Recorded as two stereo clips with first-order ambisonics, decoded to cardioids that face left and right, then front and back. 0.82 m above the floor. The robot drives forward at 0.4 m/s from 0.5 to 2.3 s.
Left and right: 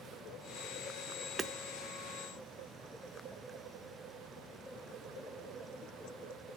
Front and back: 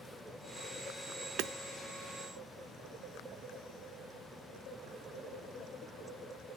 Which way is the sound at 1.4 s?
160° right.